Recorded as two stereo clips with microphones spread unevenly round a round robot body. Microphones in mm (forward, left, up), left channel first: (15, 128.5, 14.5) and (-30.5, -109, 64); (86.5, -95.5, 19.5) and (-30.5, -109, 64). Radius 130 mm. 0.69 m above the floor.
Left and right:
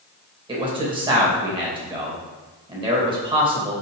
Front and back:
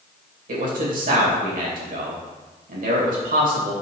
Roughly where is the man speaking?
Behind.